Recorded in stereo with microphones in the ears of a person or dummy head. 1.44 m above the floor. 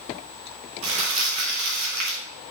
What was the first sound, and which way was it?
Crumpling, 40° right (ahead or behind).